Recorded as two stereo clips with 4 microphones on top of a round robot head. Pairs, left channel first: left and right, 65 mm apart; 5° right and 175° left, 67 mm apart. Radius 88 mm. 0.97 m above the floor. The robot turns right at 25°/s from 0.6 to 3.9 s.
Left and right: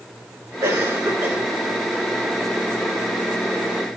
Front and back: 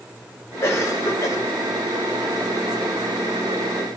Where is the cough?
50° right, 5 m; by 1.4 s 30° right, 5 m.